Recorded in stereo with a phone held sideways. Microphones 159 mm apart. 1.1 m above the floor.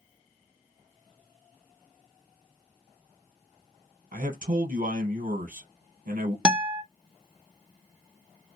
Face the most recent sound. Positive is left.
turn(degrees=-5)  # may be behind; listen again after turning